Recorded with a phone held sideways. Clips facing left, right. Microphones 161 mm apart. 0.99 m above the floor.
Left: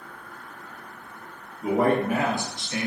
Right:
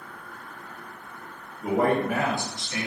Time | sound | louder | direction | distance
1.6 | a man speaking | left 1 dB | centre (ahead or behind) | 0.7 m